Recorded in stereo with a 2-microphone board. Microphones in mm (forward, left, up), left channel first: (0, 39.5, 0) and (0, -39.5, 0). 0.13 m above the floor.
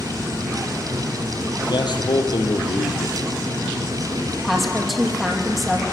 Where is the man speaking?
70° left (ahead or behind), 4 m.